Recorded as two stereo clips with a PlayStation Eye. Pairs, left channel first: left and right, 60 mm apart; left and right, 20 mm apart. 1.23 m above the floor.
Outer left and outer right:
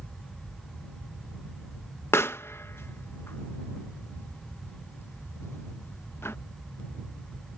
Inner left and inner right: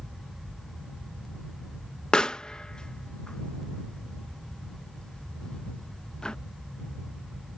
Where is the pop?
45° left (ahead or behind).